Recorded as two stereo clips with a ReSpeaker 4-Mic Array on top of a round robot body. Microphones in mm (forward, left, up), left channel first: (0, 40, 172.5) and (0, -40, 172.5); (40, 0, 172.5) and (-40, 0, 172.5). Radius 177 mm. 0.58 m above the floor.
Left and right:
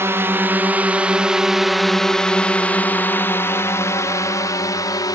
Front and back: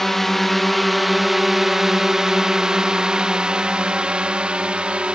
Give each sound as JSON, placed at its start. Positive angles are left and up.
{"t": 0.0, "sound": "a drone", "azimuth_deg": -85}